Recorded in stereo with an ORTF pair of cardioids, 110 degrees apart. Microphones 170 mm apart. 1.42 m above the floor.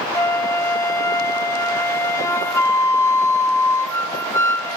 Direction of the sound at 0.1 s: 20° left.